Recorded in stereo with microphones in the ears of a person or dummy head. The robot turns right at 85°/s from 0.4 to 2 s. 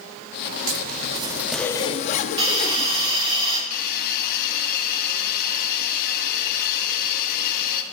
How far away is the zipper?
About 0.6 m.